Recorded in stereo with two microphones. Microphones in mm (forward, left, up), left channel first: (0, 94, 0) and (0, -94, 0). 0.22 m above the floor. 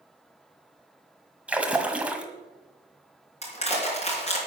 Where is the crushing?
35° left (ahead or behind), 3.5 m.